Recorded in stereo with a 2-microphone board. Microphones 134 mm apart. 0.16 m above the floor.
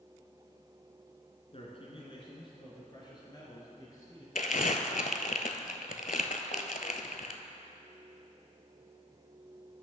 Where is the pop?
No pop in this recording.